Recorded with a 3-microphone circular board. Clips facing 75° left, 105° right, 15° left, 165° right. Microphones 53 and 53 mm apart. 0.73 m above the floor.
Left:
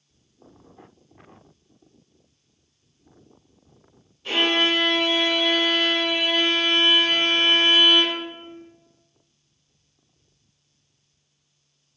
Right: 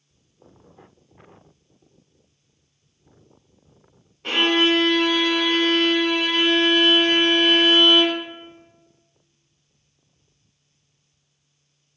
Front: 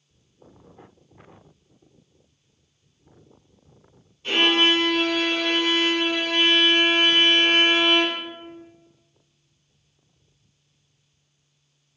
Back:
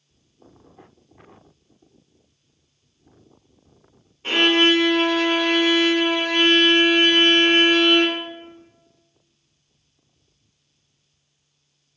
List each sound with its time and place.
4.2 s a violin: 120° right, 1.7 m